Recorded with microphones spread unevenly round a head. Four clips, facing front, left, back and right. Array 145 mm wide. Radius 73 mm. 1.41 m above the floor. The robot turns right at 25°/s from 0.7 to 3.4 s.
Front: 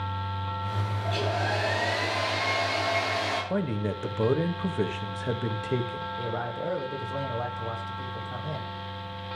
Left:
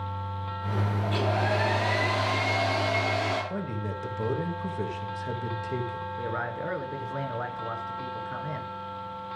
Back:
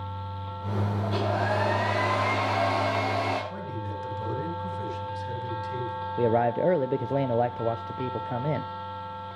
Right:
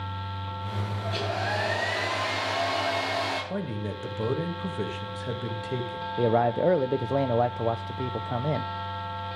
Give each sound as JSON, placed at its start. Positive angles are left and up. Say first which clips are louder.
{"t": 1.0, "sound": "a hair dryer", "louder": "left 2 dB, back 1 dB", "azimuth_deg": 145, "distance_m": 6.0}
{"t": 3.5, "sound": "a man speaking", "louder": "right 1 dB, front 6 dB", "azimuth_deg": -10, "distance_m": 2.0}
{"t": 6.2, "sound": "a man speaking", "louder": "right 12 dB, back 11 dB", "azimuth_deg": -140, "distance_m": 0.8}